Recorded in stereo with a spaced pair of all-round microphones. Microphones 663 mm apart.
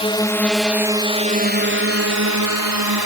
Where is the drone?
10° left (ahead or behind); by 3.1 s 35° right (ahead or behind).